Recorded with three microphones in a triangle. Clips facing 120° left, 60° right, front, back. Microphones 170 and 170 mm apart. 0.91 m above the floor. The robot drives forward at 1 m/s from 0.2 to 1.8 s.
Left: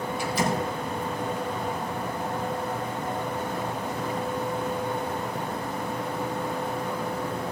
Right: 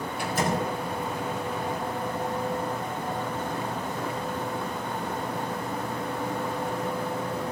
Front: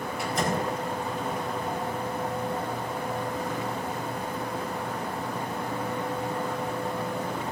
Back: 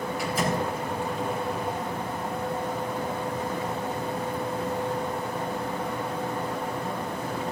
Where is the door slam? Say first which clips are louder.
Even, even; 90° right, 4.5 m; by 0.7 s 100° right, 4.5 m.